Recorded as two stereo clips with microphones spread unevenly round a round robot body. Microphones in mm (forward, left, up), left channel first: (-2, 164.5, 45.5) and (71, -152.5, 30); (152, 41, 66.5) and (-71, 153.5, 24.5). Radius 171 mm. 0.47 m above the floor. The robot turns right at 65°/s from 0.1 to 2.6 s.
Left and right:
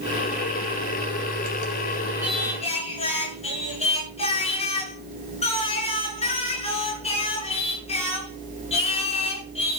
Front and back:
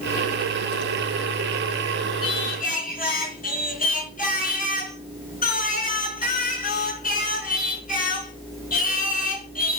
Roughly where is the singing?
Ahead.